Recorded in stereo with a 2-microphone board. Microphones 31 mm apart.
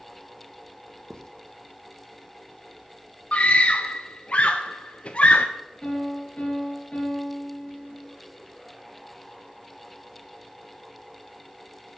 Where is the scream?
40° left (ahead or behind), 0.6 m.